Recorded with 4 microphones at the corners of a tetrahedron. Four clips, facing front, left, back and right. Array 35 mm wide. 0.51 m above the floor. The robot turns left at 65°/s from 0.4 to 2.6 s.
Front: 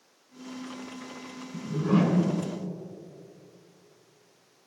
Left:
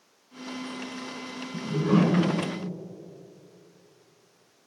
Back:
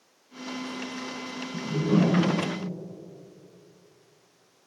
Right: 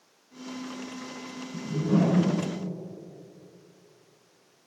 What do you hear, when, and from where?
1.5 s a whoosh: 75° left, 2.5 m; by 2.3 s 25° left, 2.5 m